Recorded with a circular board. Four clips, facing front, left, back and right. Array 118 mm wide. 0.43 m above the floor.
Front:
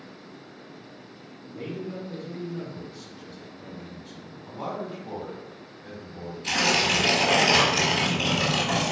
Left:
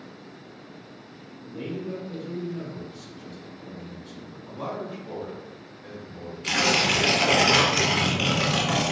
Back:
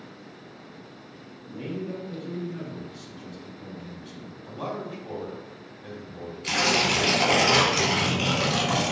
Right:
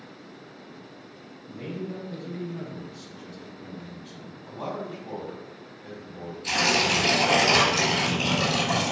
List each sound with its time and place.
1.5 s a man speaking: 105° left, 1.2 m; by 4.3 s 145° right, 1.7 m
4.5 s a man speaking: 175° left, 1.5 m
6.4 s tearing paper: 115° left, 1.6 m